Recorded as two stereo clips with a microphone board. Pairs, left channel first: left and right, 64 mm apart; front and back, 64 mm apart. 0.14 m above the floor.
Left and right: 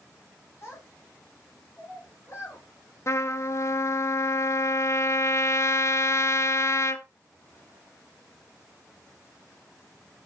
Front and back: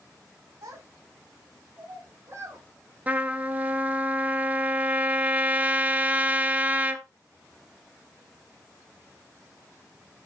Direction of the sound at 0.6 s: 145° left.